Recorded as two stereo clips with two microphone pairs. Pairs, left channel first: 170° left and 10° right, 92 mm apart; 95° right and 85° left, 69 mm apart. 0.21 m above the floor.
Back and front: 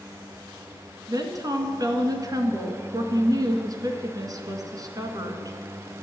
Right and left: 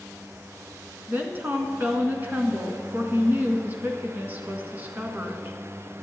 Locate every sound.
1.1 s a woman speaking: 30° left, 1.9 m